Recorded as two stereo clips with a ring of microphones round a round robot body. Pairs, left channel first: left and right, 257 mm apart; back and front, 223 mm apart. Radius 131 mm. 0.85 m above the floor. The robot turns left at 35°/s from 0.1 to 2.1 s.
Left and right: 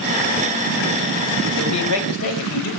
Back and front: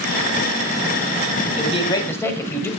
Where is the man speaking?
120° left, 5.5 m; by 2.7 s 100° left, 5.5 m.